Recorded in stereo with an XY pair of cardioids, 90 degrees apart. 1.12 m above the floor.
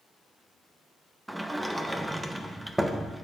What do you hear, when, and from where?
1.3 s a sliding door: 10° right, 0.7 m